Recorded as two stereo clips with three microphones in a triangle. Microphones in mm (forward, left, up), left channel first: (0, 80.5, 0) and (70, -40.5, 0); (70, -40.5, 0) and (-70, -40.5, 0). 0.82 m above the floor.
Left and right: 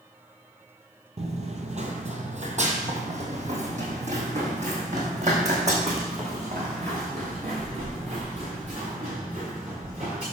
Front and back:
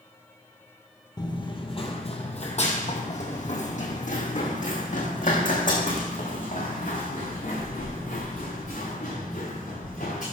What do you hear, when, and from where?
1.2 s running footsteps: 50° right, 1.1 m; by 10.2 s 20° right, 5.5 m